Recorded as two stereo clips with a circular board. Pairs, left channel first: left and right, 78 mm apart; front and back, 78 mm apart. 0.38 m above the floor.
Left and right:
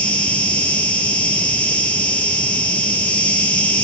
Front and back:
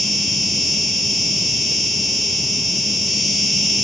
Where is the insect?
95° left, 1.0 m.